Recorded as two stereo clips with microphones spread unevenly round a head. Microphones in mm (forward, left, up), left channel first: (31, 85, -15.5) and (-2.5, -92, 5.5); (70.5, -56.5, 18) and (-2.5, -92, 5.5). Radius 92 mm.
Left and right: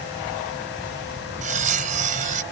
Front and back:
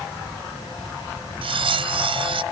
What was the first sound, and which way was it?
Cutlery clinking, 150° right.